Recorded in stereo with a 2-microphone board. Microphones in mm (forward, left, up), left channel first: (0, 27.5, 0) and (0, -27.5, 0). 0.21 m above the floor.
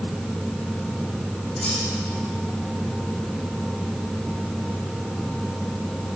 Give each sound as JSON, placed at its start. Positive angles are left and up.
{"t": 1.6, "sound": "cutlery clinking", "side_deg": 25, "distance_m": 7.0}